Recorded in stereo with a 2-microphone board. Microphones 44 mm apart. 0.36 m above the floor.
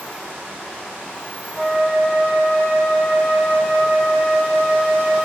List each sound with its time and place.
1.6 s a flute: 20° right (ahead or behind), 0.8 m